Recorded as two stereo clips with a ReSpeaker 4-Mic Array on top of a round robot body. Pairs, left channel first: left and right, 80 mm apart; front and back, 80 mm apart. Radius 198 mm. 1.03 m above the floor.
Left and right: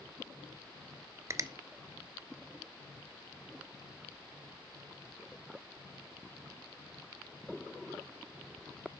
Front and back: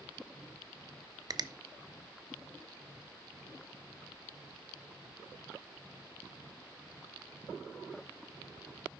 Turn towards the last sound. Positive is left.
turn(degrees=-140)